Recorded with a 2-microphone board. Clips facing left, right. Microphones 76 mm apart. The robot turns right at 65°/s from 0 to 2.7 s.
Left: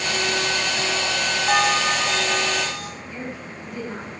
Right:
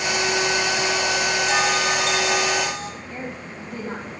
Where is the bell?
130° left, 2 m; by 2.9 s 155° right, 2 m.